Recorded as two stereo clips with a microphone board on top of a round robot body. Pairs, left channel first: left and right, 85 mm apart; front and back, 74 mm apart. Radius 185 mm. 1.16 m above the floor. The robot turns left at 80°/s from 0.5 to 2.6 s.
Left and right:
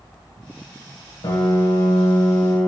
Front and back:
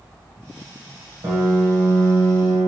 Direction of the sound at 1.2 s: 130° left.